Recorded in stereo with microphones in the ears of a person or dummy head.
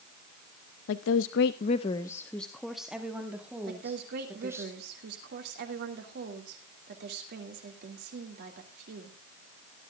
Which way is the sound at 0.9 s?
80° left.